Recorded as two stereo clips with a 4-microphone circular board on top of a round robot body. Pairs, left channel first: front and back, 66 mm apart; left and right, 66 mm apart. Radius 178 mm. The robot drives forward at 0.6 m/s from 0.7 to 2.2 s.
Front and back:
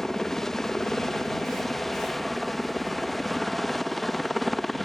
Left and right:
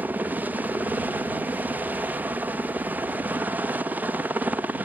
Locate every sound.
0.0 s a helicopter: 75° right; by 4.9 s 85° right